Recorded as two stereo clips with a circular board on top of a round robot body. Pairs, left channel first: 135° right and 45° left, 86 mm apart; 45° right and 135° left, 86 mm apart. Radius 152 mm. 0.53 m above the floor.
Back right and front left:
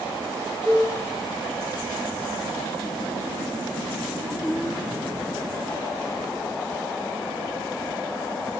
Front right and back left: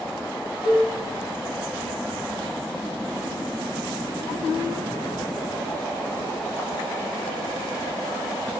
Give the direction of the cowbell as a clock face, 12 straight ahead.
8 o'clock.